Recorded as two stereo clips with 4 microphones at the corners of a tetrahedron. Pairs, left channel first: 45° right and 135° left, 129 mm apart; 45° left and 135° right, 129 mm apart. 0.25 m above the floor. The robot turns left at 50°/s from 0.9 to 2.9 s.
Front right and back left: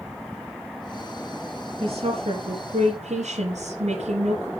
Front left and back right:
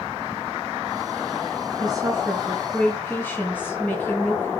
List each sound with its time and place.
1.8 s a woman speaking: 175° left, 3.5 m; by 4.5 s 120° left, 3.5 m